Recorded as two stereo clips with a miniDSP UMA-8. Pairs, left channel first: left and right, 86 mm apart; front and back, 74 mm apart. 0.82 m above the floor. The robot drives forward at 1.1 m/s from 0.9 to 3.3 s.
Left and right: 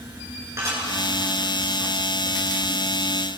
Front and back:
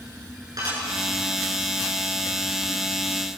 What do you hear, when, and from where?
0.6 s dishes clattering: 145° right, 8.5 m